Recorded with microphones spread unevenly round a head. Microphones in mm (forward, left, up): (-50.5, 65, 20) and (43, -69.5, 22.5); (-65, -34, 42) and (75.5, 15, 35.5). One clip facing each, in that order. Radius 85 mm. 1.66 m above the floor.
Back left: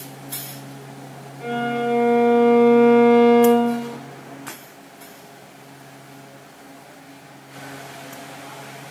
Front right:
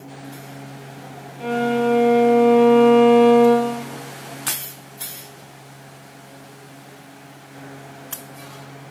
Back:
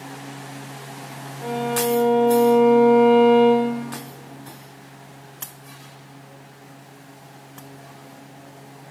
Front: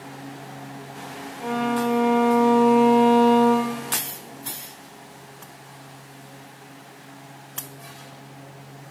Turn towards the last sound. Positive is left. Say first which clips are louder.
# front right 4 dB, even
turn(degrees=-50)